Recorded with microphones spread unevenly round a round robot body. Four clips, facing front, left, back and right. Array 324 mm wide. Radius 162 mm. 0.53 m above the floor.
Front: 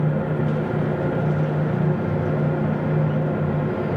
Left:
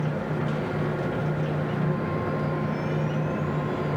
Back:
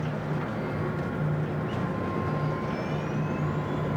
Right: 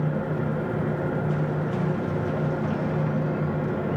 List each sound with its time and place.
Only background noise.